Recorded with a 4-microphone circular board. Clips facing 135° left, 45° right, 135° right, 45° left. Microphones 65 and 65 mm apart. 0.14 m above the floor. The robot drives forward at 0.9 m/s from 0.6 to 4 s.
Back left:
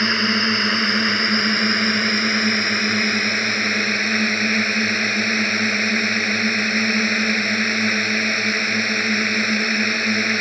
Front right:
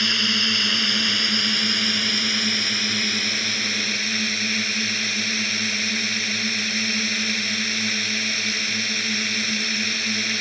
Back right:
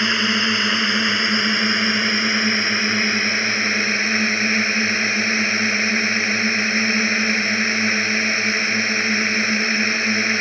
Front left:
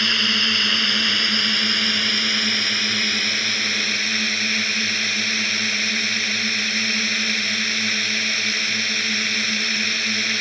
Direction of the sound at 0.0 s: 165° left.